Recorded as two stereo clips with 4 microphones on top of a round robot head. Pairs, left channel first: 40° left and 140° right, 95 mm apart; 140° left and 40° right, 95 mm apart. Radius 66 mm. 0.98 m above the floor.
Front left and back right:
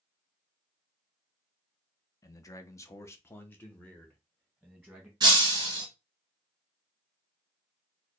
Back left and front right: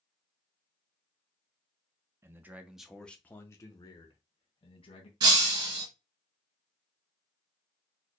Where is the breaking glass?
85° right, 2 m.